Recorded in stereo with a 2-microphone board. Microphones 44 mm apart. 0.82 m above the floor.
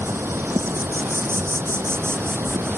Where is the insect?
60° right (ahead or behind).